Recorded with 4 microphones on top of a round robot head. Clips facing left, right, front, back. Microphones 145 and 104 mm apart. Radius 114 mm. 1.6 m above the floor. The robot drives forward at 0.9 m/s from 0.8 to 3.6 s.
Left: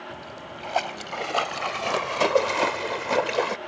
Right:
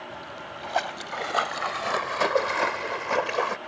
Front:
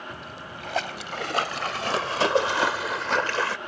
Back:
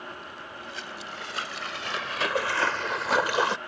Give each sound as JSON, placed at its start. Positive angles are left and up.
{"t": 0.1, "sound": "a splash", "azimuth_deg": 10}